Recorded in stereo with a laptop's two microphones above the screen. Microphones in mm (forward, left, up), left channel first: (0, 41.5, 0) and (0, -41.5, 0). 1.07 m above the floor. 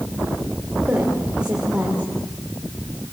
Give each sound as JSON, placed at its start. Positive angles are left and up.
{"t": 0.9, "sound": "a woman speaking", "side_deg": -10, "distance_m": 4.0}